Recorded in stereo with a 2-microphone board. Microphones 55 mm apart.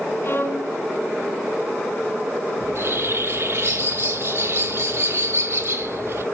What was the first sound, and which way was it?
A violin, 45° left (ahead or behind).